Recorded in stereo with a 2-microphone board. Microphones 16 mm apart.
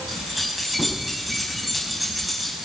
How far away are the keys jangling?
About 6 m.